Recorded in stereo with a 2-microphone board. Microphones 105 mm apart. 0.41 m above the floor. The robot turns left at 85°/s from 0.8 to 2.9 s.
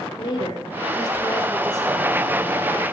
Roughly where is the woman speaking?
Left.